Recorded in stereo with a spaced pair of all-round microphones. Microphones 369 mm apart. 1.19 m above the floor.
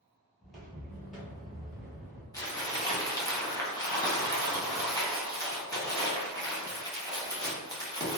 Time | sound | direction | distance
0.4 | footsteps | centre (ahead or behind) | 1.2 m
2.3 | crumpling | 10° left (ahead or behind) | 0.8 m